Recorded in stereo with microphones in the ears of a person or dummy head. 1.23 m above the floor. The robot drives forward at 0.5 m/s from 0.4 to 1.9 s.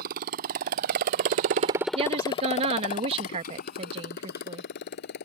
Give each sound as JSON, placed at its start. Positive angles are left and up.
{"t": 0.0, "sound": "a motorcycle", "side_deg": -50}
{"t": 1.9, "sound": "a woman speaking", "side_deg": -35}